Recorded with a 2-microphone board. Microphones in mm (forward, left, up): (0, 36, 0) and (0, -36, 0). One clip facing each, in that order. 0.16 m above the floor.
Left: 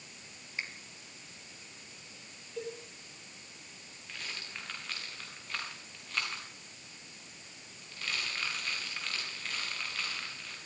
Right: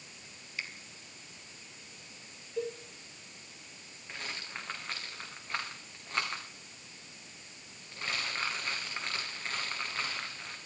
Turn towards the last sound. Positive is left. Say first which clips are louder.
# right 2 dB
turn(degrees=-25)  # may be behind; listen again after turning